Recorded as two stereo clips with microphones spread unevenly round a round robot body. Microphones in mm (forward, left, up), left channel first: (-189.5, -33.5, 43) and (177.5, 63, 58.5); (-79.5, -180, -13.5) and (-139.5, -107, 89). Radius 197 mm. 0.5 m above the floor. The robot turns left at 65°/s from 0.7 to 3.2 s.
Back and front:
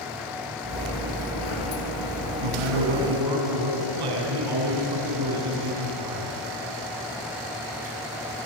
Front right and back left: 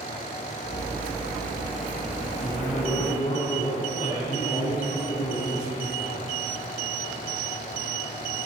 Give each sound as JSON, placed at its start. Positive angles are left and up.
{"t": 2.4, "sound": "a man speaking", "azimuth_deg": 35, "distance_m": 5.0}